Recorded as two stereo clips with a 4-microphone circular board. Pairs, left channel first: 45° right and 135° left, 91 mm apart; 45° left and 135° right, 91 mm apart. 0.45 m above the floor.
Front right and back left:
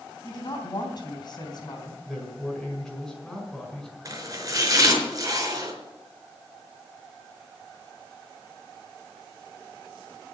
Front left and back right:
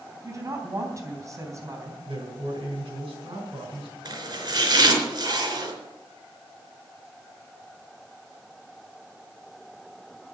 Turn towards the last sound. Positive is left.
turn(degrees=-175)